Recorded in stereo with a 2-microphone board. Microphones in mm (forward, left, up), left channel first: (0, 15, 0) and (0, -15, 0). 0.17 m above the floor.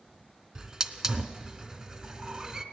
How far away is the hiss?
About 0.6 m.